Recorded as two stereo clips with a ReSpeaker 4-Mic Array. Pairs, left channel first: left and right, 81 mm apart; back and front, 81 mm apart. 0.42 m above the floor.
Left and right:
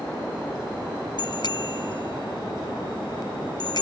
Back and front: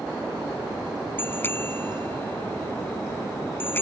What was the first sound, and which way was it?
A bicycle bell, 115° left.